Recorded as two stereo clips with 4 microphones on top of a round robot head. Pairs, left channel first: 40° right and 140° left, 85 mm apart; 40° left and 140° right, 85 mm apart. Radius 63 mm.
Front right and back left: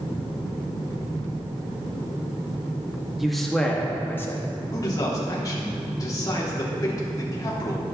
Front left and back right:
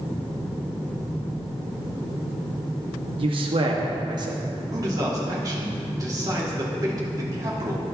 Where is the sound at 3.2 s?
135° right, 1.6 m; by 4.4 s 100° right, 1.5 m.